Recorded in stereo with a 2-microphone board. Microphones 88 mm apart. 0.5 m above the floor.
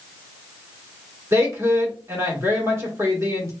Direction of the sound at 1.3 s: 35° right (ahead or behind).